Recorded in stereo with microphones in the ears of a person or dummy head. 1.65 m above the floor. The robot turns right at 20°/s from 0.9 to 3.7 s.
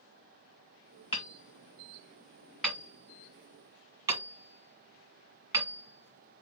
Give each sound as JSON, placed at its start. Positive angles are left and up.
{"t": 1.1, "sound": "hammering", "side_deg": 30, "distance_m": 1.9}